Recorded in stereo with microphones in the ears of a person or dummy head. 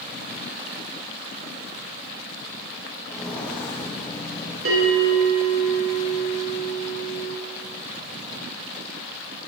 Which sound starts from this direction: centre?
Footsteps, at 3.1 s.